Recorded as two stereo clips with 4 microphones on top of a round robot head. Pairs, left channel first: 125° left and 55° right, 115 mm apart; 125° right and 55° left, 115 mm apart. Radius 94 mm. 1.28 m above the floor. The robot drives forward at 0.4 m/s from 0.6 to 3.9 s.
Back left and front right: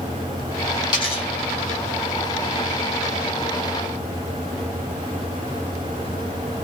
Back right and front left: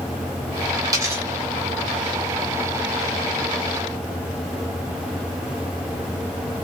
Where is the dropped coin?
90° left, 0.5 m; by 1.2 s 125° left, 0.6 m.